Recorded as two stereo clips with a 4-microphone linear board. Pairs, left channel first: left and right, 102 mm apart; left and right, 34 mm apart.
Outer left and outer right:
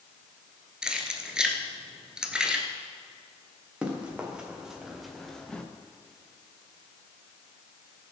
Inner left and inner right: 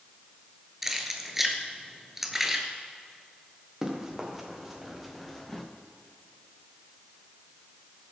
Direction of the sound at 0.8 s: 10° right (ahead or behind).